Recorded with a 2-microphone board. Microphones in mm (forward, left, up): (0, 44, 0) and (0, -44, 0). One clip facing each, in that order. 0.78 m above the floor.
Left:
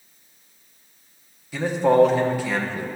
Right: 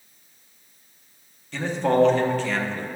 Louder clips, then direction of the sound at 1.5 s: Left 4 dB; 5° left (ahead or behind).